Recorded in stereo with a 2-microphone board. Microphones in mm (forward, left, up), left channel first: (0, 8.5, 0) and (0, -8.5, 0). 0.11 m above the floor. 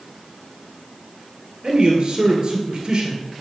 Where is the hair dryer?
No hair dryer in this recording.